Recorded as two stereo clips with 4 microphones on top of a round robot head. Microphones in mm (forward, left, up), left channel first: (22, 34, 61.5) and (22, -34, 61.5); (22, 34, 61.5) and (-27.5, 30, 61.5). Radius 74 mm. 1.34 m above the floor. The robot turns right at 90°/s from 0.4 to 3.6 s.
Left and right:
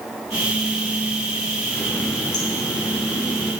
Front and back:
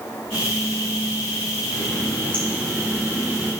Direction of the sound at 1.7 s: 10° left.